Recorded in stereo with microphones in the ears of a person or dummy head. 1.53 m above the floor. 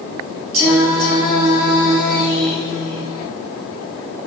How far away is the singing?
About 0.9 m.